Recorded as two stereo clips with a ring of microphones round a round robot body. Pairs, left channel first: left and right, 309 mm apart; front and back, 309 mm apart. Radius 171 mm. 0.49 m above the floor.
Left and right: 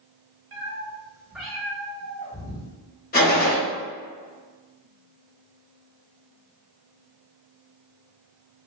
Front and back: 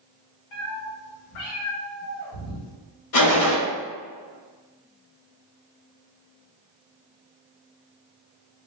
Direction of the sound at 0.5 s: 35° right.